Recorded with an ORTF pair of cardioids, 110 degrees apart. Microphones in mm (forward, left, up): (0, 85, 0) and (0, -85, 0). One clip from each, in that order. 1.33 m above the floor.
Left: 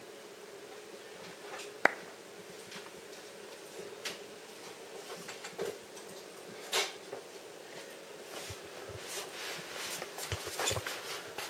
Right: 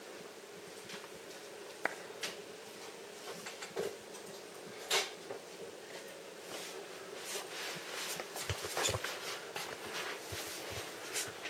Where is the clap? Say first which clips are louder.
Left 10 dB; 45° left, 0.6 m.